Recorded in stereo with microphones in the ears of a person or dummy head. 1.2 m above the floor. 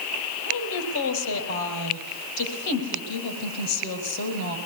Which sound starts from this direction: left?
A woman speaking, at 0.5 s.